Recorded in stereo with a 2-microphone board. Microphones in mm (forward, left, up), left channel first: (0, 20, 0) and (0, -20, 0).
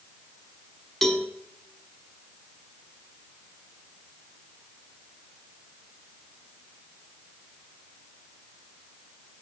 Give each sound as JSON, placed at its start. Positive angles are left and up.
{"t": 1.0, "sound": "a cowbell", "side_deg": 10, "distance_m": 0.8}